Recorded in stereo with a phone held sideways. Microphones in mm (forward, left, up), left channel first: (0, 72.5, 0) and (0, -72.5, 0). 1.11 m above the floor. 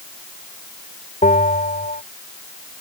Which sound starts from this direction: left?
A bell, at 1.2 s.